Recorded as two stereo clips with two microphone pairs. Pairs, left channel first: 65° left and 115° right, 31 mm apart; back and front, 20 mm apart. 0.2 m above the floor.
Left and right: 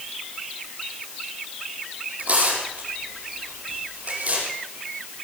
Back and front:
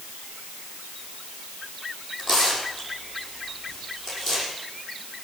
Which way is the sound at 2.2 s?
70° right.